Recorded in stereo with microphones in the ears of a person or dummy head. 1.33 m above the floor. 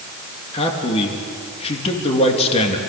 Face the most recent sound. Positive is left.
turn(degrees=35)  # may be behind; listen again after turning